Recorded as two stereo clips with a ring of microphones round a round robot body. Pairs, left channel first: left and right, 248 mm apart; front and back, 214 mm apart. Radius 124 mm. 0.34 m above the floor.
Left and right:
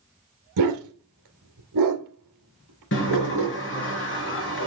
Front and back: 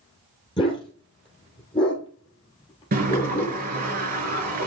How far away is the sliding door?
About 5 m.